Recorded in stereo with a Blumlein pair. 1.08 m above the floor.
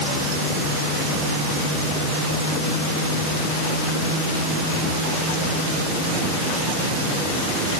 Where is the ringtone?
I don't hear a ringtone.